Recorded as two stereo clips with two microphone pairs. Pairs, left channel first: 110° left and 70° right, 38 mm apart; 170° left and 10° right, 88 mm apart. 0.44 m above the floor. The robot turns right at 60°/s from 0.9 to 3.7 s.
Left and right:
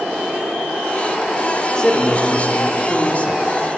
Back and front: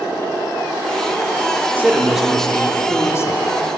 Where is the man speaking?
50° left, 0.9 m; by 3.4 s 150° left, 0.9 m.